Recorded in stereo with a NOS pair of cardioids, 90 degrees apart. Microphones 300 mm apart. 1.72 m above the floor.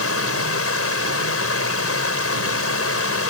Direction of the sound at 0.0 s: 45° left.